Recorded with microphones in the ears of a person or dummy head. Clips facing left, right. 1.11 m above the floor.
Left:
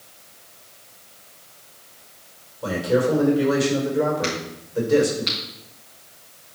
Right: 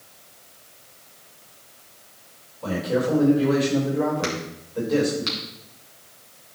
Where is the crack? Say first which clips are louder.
Left 1 dB; 55° right (ahead or behind), 3 m.